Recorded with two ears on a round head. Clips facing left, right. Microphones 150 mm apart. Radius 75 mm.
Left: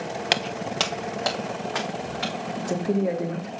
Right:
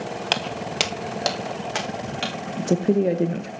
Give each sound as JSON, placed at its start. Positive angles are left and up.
{"t": 0.3, "sound": "footsteps", "side_deg": 15, "distance_m": 0.6}
{"t": 2.6, "sound": "a woman speaking", "side_deg": -30, "distance_m": 0.7}